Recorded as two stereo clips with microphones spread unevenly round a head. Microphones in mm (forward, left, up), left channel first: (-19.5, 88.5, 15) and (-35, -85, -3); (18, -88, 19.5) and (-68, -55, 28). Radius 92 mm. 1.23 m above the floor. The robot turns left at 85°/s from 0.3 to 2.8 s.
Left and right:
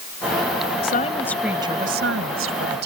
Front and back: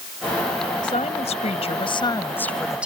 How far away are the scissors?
No scissors in this recording.